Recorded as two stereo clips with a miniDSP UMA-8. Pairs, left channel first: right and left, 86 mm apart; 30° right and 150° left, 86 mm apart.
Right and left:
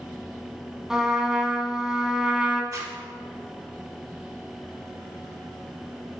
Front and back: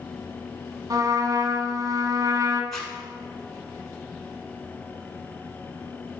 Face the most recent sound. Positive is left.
turn(degrees=50)